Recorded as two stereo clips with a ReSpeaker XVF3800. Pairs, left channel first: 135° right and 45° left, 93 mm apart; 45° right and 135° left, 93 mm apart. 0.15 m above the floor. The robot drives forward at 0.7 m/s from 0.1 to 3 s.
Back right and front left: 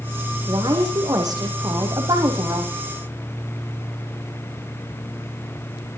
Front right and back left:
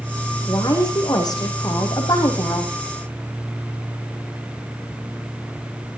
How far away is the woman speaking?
About 6.5 m.